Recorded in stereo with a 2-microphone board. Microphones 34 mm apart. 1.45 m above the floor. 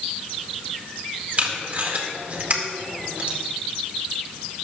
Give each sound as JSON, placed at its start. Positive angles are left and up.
{"t": 1.4, "sound": "tape being pulled", "side_deg": -40, "distance_m": 2.0}